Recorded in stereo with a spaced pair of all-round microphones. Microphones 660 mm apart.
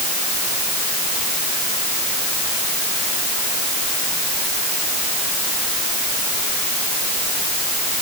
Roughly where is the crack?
I don't hear a crack.